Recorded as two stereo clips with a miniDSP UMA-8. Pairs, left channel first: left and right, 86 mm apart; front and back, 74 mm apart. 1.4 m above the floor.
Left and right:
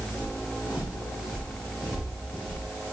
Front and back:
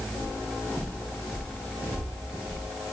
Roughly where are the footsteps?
Behind left.